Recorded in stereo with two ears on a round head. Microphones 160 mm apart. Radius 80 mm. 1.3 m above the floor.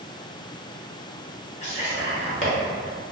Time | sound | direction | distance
1.6 | whispering | 40° left (ahead or behind) | 1.4 m